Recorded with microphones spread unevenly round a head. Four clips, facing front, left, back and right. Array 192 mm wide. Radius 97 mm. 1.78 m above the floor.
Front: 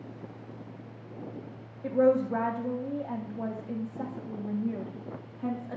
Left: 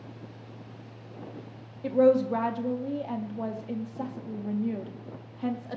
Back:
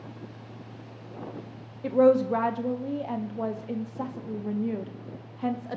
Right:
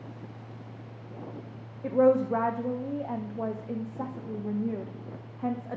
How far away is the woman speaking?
About 0.5 m.